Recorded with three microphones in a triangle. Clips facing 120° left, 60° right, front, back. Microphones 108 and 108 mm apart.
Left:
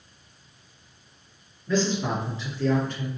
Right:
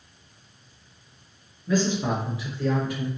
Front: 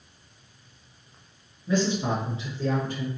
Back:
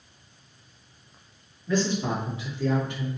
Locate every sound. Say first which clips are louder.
1.7 s a man speaking: right 1 dB, front 1 dB; 20° right, 1.5 m; by 3.1 s 20° left, 1.9 m